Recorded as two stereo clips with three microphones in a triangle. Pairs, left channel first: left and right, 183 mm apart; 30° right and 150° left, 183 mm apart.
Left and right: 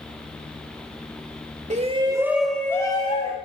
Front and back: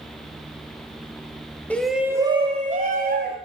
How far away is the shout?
About 1.2 m.